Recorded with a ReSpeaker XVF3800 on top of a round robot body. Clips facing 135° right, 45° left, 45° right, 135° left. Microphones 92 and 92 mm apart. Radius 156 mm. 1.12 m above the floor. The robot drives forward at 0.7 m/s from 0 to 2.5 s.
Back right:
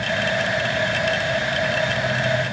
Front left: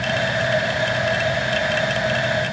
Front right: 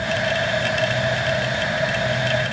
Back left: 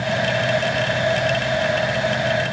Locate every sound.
Only background noise.